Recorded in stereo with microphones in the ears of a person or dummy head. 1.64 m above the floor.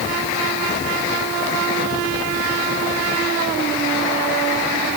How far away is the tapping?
No tapping in this recording.